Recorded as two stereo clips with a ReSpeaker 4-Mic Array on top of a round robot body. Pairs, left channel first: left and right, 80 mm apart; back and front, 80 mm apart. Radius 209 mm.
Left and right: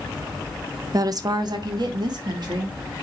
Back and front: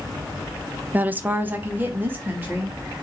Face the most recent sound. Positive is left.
turn(degrees=-65)